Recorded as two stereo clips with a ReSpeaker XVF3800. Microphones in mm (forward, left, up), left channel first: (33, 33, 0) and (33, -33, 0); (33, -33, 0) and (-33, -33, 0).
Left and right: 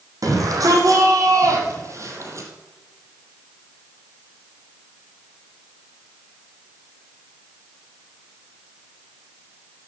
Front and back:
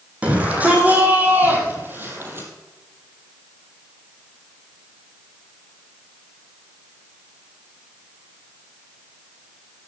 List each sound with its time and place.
0.2 s a shout: 110° right, 5 m; by 2.5 s 125° right, 3.5 m